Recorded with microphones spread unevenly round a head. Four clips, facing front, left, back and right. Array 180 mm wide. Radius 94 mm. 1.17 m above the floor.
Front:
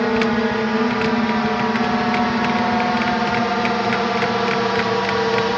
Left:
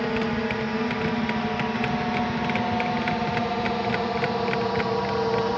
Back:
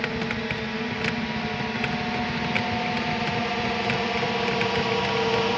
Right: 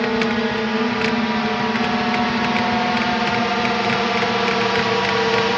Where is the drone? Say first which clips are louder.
Right 6 dB, front 11 dB; 30° right; by 5.6 s 50° right.